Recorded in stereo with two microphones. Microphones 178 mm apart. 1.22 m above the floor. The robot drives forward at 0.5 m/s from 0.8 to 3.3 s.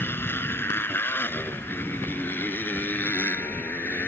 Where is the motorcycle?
10° left (ahead or behind).